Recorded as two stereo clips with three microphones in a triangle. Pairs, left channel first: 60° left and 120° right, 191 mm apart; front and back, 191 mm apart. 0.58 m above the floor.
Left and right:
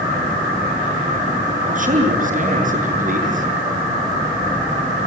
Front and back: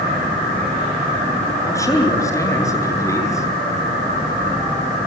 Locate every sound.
1.7 s a man speaking: 75° right, 7.5 m